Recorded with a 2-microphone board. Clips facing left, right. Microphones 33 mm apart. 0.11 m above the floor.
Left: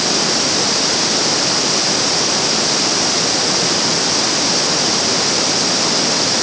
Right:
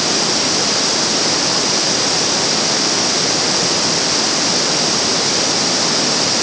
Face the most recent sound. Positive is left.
No sound to turn to.